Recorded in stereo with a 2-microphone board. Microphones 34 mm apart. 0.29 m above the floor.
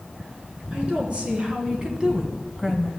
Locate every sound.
0.7 s a woman speaking: 30° right (ahead or behind), 4 m; by 2.9 s centre (ahead or behind), 1.4 m